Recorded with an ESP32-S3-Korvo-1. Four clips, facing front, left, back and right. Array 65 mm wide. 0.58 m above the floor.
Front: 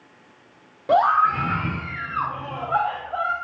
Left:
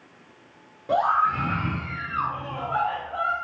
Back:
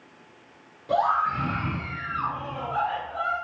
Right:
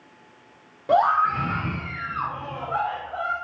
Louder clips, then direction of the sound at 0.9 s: Right 2 dB, front 6 dB; 30° right.